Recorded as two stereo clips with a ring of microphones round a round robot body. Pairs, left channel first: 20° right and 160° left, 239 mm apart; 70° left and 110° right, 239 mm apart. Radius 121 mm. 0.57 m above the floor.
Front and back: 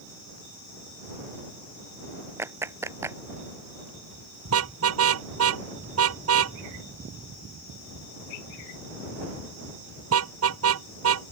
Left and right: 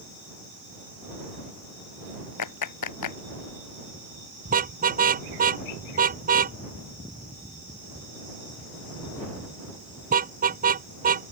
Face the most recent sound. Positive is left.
turn(degrees=-170)